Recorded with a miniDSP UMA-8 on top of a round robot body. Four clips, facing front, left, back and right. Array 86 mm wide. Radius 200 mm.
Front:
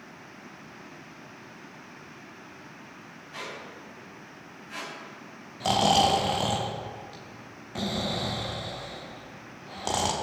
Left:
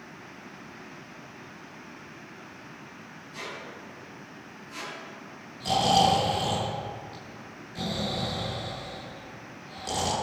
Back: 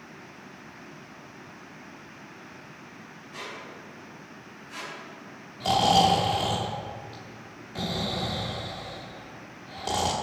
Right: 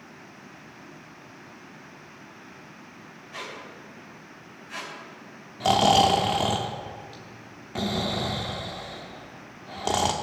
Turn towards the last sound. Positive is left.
turn(degrees=-65)